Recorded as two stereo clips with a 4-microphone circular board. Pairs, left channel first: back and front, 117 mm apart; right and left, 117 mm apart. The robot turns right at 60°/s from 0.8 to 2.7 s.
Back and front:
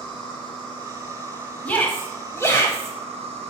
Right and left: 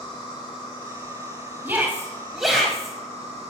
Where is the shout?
125° left, 1.2 m; by 2.9 s 170° right, 1.2 m.